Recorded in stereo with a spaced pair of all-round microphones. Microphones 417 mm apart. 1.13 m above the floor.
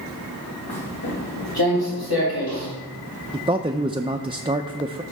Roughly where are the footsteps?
Left.